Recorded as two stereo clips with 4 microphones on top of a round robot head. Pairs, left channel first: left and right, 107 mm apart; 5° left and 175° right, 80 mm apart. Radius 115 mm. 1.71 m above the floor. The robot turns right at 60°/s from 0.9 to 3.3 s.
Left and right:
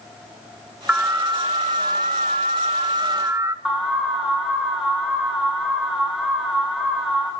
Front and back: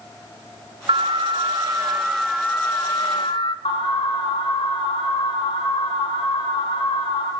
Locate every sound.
0.9 s an alarm: 170° right, 1.2 m; by 3.5 s 25° right, 1.2 m
3.6 s an alarm: 5° right, 6 m